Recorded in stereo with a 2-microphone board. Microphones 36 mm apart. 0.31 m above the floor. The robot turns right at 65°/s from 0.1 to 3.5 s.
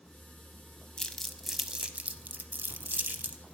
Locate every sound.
1.0 s crumpling: 25° left (ahead or behind), 0.6 m; by 3.5 s 40° right (ahead or behind), 0.6 m